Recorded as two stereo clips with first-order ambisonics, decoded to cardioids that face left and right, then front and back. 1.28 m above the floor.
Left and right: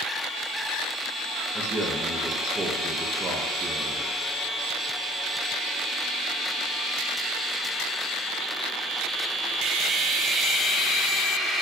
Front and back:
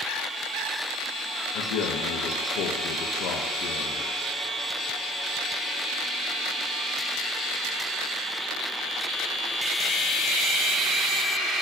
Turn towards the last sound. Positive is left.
turn(degrees=-15)